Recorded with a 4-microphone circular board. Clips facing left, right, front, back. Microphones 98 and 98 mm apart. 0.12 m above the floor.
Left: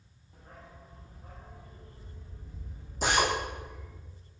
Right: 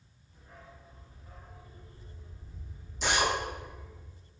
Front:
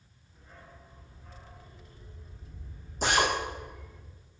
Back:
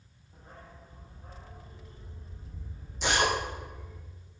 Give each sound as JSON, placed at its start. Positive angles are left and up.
{"t": 0.3, "sound": "a dog barking", "azimuth_deg": 130, "distance_m": 4.5}
{"t": 3.0, "sound": "a drill", "azimuth_deg": 45, "distance_m": 7.5}